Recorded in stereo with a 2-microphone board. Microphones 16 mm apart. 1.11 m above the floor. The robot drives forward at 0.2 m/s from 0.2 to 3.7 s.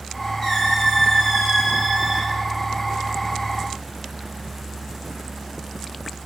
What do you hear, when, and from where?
0.4 s a squeak: 35° left (ahead or behind), 1.7 m; by 2.3 s 30° left (ahead or behind), 2 m